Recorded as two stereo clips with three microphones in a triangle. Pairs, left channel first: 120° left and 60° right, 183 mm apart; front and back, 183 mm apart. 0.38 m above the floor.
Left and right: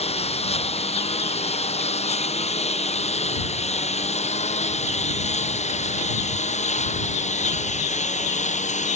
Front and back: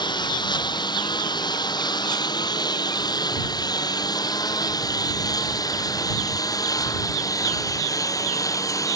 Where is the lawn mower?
65° left; by 8.9 s 70° left.